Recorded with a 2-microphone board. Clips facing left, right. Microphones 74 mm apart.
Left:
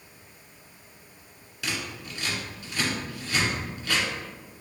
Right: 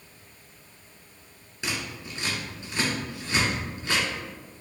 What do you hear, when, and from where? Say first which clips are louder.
1.6 s scissors: even; 25° right (ahead or behind), 1.3 m